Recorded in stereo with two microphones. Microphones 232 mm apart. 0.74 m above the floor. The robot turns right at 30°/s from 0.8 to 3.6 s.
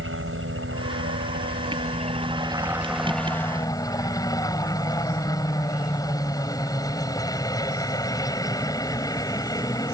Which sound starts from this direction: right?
A helicopter, at 0.0 s.